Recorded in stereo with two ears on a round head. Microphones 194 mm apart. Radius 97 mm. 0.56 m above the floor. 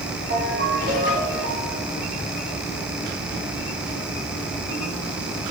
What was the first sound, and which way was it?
A ringtone, 40° right (ahead or behind).